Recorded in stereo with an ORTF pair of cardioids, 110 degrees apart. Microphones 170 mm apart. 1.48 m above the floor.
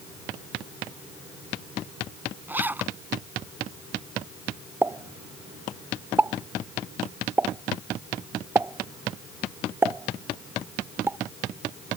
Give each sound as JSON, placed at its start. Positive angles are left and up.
{"t": 2.5, "sound": "a zipper", "azimuth_deg": -10}
{"t": 4.8, "sound": "a pop", "azimuth_deg": -15}